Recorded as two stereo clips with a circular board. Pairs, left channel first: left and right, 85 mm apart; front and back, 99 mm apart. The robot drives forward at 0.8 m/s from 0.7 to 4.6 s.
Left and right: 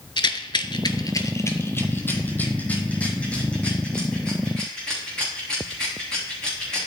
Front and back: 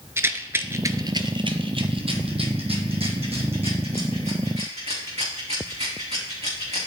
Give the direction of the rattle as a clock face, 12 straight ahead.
8 o'clock.